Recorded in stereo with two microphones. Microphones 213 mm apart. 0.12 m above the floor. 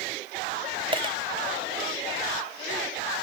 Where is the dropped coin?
25° right (ahead or behind).